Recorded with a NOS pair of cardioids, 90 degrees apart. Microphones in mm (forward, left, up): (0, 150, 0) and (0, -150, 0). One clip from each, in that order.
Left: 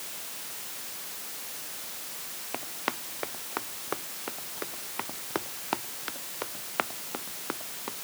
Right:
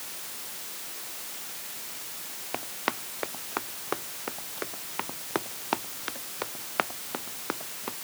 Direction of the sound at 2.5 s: 15° right.